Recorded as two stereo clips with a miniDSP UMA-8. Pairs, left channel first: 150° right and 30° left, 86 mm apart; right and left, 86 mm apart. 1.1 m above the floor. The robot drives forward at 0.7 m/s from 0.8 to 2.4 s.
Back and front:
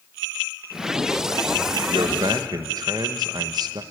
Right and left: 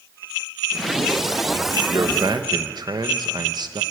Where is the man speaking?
45° left, 1.4 m; by 3.8 s 60° left, 1.2 m.